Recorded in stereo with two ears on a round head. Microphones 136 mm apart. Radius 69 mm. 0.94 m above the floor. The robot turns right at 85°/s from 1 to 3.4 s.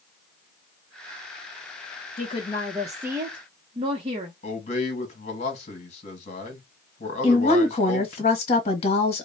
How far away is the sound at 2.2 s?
About 0.8 m.